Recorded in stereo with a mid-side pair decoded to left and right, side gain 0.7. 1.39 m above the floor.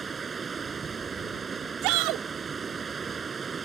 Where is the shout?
65° right.